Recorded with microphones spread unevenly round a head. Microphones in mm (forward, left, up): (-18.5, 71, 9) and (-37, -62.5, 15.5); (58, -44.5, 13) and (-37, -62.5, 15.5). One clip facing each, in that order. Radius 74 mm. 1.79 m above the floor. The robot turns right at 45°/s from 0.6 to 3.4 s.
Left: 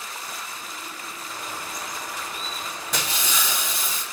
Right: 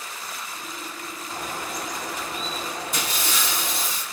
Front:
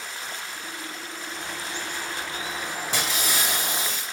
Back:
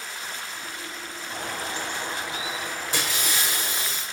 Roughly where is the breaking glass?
Ahead left.